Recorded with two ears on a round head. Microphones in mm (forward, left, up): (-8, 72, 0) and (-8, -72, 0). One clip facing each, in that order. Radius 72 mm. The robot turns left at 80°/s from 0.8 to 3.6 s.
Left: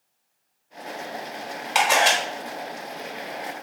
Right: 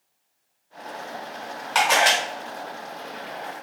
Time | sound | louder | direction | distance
1.8 | a camera shutter | even | 20° left | 1.1 m